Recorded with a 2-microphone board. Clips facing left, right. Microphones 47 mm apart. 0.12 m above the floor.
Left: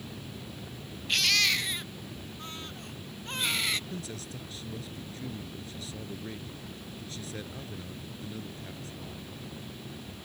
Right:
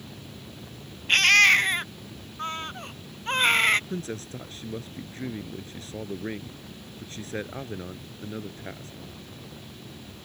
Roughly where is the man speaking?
Right.